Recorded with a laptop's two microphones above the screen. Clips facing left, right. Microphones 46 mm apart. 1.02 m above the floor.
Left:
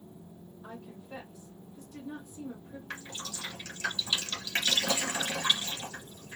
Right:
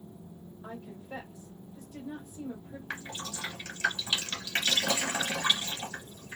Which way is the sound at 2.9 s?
30° right (ahead or behind).